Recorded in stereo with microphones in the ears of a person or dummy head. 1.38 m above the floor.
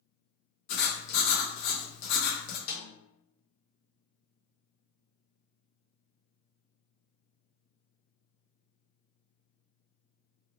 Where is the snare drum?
75° left (ahead or behind), 1.9 m.